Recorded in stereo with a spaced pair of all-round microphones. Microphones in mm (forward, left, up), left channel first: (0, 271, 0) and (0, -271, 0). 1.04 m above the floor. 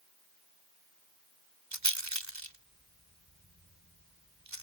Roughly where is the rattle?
Right.